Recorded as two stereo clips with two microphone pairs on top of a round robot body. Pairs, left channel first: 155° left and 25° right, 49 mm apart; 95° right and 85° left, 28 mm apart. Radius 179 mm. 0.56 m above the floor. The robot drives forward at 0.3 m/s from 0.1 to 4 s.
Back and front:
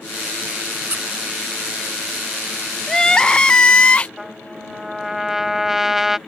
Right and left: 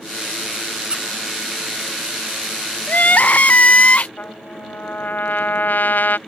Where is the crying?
125° right; by 4.1 s 135° right.